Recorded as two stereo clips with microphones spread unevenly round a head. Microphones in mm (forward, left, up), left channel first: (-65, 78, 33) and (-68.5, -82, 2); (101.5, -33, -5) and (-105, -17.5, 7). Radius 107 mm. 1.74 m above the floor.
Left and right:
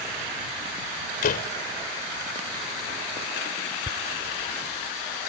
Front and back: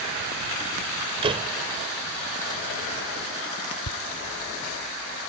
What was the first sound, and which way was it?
A door slam, 110° left.